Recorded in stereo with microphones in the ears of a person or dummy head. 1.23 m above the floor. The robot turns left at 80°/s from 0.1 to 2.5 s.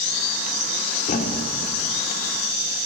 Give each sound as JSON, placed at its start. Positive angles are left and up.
{"t": 1.1, "sound": "a thud", "side_deg": 50, "distance_m": 1.6}